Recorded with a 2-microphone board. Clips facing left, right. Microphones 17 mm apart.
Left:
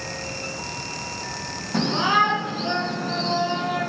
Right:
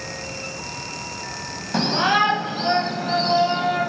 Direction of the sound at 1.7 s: 40° right (ahead or behind).